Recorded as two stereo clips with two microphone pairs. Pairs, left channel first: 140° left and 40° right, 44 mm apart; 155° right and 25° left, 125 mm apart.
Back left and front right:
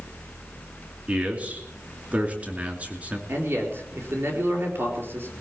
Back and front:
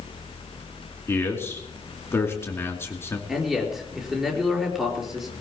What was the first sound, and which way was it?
A man speaking, 90° right.